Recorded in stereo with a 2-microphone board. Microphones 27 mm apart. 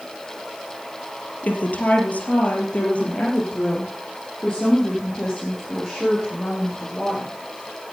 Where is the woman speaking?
65° left (ahead or behind), 3.5 m; by 7.3 s 15° left (ahead or behind), 8 m.